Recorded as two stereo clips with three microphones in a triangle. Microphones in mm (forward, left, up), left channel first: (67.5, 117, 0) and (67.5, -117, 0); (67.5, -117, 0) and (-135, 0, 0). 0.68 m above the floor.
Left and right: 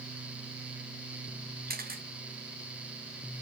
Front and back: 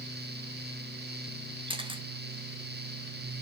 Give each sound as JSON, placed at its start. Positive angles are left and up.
{"t": 1.7, "sound": "a camera shutter", "azimuth_deg": -140, "distance_m": 1.0}